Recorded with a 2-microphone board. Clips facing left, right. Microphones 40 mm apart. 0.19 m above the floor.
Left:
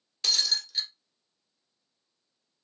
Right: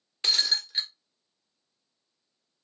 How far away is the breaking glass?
About 0.7 m.